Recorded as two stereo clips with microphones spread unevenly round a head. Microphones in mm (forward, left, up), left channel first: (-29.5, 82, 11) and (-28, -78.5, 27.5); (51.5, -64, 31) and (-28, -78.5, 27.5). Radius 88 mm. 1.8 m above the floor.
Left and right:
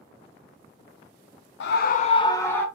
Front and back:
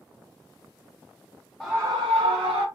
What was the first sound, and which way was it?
A scream, 100° left.